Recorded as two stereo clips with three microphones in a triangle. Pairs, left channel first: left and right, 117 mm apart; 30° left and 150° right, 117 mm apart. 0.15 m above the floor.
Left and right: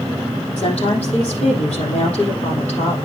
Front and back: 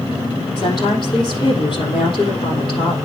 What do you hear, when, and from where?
0.6 s a woman speaking: 75° left, 5.5 m